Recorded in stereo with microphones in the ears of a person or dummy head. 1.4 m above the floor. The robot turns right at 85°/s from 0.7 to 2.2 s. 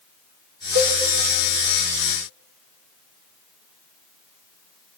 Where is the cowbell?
55° right (ahead or behind), 3 m; by 1.0 s 65° right (ahead or behind), 3 m.